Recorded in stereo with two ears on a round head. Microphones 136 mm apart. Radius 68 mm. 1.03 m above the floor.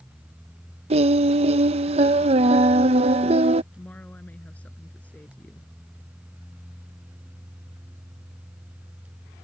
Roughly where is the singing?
Right.